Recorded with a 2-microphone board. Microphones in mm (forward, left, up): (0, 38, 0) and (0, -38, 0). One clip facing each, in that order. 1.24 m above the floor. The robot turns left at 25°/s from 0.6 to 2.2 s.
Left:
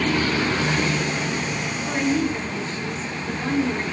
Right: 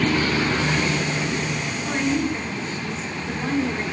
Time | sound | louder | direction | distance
1.9 | a woman speaking | left 1 dB | 10° right (ahead or behind) | 4.5 m